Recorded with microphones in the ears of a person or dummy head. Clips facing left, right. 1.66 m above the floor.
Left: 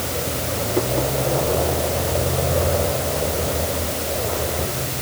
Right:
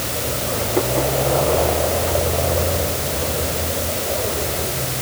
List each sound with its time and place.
Only background noise.